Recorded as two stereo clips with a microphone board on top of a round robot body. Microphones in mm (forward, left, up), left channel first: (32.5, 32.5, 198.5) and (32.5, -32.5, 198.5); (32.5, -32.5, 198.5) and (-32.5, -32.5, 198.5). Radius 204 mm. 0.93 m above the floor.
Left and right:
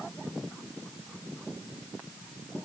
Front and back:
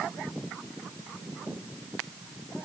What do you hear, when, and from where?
Only background noise.